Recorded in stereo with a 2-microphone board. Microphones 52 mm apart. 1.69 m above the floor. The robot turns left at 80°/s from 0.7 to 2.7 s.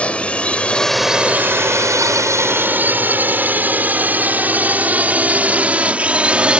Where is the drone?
25° left (ahead or behind); by 6.6 s 20° right (ahead or behind).